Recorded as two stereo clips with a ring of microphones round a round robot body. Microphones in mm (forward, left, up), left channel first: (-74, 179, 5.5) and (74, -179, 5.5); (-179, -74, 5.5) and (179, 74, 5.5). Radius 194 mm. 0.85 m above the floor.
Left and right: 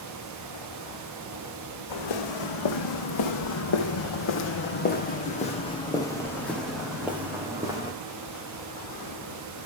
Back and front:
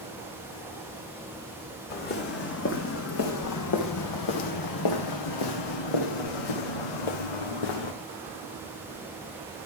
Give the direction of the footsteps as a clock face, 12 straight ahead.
7 o'clock.